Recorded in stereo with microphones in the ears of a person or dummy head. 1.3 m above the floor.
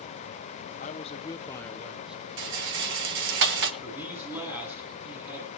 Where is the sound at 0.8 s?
40° left (ahead or behind), 0.9 m; by 2.2 s 5° right (ahead or behind), 1.0 m.